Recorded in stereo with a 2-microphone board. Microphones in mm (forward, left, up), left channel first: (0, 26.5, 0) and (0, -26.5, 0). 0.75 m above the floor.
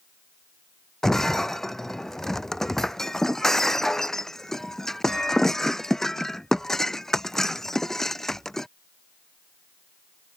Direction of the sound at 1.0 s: 5° left (ahead or behind).